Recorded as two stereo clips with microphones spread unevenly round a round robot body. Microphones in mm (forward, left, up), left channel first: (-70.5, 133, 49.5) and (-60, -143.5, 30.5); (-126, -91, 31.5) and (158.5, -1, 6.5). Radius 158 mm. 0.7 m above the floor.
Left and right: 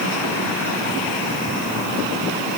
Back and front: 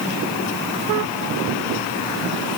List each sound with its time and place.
Only background noise.